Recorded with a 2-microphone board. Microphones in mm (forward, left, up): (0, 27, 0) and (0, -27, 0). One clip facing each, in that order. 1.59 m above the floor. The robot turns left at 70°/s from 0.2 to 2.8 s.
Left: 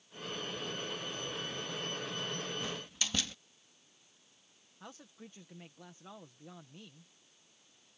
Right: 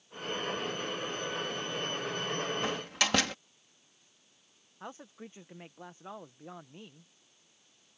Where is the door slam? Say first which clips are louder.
Right 8 dB; 60° right (ahead or behind); by 3.4 s 75° right (ahead or behind).